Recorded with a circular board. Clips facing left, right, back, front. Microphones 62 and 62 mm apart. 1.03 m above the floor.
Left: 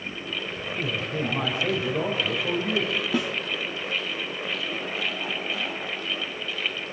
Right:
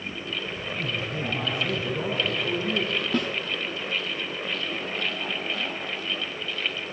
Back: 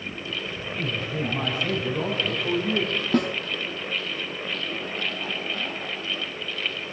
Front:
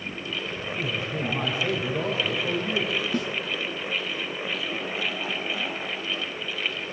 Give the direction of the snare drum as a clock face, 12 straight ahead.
6 o'clock.